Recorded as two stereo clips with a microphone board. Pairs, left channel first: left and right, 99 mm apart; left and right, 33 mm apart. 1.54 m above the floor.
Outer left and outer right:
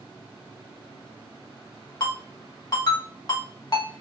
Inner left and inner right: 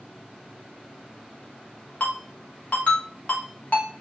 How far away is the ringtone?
About 1.6 m.